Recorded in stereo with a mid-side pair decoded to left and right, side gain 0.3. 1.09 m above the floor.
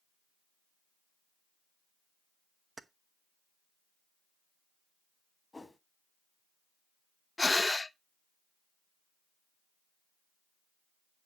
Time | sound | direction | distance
2.8 | keys jangling | 35° right | 0.9 m
5.5 | a whoosh | 25° left | 1.4 m
7.4 | breathing | 25° left | 0.6 m